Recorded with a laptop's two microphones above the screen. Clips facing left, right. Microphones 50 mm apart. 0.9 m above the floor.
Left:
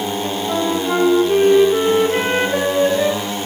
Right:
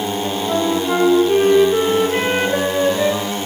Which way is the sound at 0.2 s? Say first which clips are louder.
Right 2 dB; centre (ahead or behind).